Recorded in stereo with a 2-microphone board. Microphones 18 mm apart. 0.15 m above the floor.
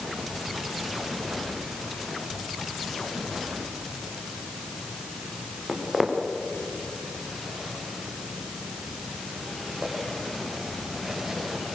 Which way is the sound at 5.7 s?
5° right (ahead or behind).